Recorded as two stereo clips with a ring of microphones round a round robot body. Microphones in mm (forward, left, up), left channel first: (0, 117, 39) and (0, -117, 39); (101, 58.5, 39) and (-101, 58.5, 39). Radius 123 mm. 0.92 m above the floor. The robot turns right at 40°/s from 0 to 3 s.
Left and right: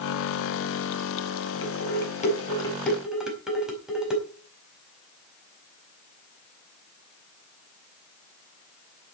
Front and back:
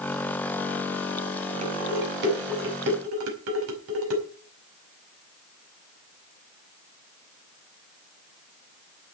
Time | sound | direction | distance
1.6 | dishes clattering | 125° left | 4.5 m